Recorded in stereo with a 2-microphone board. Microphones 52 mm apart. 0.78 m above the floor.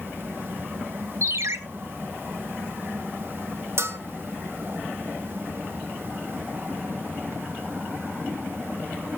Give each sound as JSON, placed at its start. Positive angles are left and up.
{"t": 1.2, "sound": "a ringtone", "side_deg": -65, "distance_m": 0.8}
{"t": 3.8, "sound": "a bell", "side_deg": -60, "distance_m": 1.6}